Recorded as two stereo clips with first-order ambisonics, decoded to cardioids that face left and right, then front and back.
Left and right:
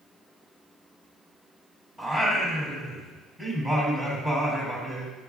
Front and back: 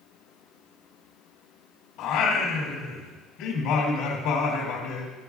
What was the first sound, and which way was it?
Singing, 15° right.